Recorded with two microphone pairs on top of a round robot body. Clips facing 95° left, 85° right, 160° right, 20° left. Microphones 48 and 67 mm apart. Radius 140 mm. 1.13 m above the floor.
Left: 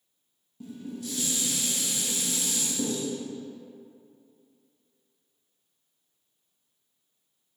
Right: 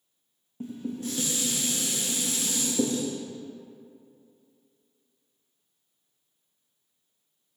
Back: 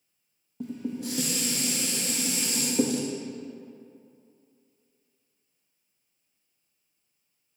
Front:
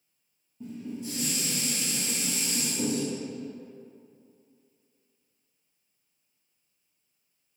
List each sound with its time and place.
0.6 s dishes clattering: 145° right, 0.8 m